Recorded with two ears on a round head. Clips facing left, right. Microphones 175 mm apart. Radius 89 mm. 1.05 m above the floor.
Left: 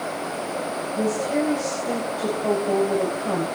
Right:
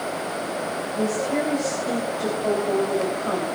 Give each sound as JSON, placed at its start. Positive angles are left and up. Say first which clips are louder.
{"t": 1.0, "sound": "a woman speaking", "louder": "left 1 dB", "side_deg": 10, "distance_m": 4.0}